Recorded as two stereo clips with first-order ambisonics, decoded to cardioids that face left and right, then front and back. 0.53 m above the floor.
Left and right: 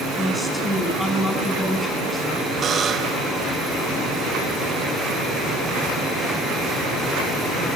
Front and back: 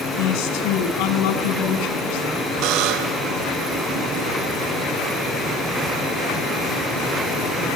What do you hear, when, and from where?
0.2 s a woman speaking: 5° left, 4.5 m
2.6 s a buzzer: 155° right, 1.2 m